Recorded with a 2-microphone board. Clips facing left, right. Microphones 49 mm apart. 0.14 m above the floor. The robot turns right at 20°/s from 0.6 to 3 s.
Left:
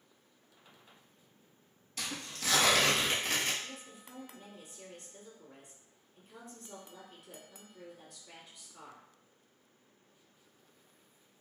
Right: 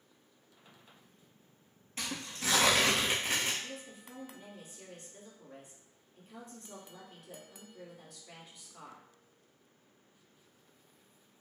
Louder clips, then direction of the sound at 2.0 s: Right 1 dB; 30° right (ahead or behind).